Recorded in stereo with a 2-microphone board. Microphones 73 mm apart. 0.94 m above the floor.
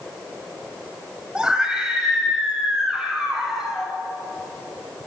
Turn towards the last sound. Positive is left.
turn(degrees=-10)  # may be behind; listen again after turning